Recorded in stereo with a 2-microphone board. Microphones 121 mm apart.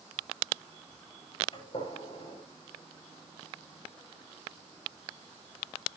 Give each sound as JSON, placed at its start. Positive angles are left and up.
{"t": 1.5, "sound": "a gunshot", "side_deg": 45, "distance_m": 9.5}